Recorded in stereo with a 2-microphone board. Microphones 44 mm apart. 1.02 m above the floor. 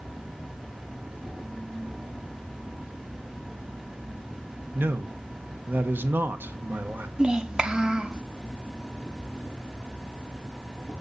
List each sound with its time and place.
0.0 s an insect: 60° right (ahead or behind), 6 m
4.8 s a man speaking: 50° right (ahead or behind), 1.0 m
7.2 s a child speaking: 20° right (ahead or behind), 0.6 m